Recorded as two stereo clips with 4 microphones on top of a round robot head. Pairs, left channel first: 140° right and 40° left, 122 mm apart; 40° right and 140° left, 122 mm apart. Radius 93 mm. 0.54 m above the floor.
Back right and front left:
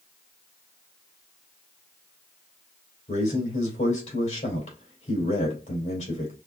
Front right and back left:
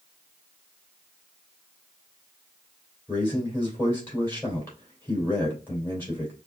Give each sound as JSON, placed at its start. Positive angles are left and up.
{"t": 3.1, "sound": "a man speaking", "azimuth_deg": -110, "distance_m": 3.0}